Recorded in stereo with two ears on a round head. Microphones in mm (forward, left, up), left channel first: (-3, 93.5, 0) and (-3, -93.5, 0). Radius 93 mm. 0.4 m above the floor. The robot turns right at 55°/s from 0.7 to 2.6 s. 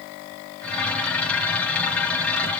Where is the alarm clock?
No alarm clock in this recording.